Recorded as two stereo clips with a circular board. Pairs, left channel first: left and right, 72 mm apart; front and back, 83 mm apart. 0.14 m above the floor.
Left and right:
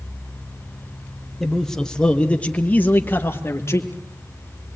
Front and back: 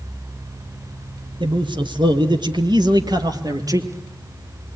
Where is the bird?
No bird in this recording.